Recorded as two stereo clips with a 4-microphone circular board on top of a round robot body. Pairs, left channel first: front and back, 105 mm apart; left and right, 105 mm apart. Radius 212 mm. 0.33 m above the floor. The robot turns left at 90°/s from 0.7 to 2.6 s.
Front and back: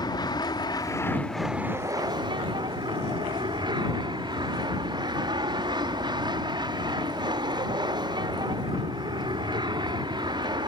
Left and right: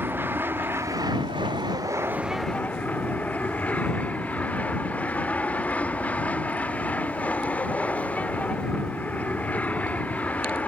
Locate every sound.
0.0 s an aircraft: 25° right; by 10.7 s 160° left